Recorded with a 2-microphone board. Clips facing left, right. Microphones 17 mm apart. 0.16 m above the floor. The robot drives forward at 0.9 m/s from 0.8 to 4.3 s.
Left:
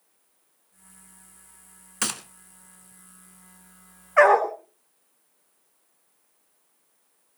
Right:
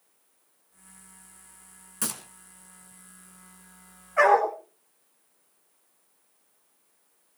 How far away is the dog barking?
About 3.5 m.